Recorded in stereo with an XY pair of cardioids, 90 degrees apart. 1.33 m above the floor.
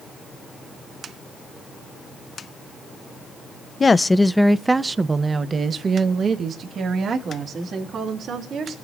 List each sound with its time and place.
3.8 s a woman speaking: 35° left, 0.9 m; by 8.8 s 70° right, 4 m